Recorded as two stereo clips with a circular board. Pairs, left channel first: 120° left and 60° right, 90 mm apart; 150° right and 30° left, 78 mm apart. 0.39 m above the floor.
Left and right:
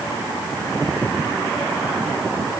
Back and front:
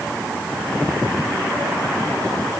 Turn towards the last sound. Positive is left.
No sound to turn to.